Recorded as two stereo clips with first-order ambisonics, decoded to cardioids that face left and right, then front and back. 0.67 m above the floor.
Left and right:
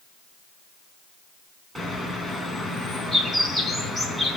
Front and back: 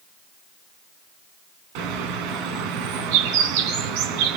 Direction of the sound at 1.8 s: 175° right.